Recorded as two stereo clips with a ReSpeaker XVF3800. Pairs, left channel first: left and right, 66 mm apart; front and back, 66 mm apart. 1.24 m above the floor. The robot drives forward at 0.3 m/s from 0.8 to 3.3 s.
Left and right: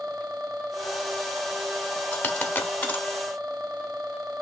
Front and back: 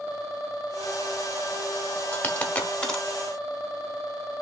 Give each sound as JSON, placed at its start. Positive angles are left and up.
{"t": 2.1, "sound": "a dropped coin", "azimuth_deg": 45, "distance_m": 1.0}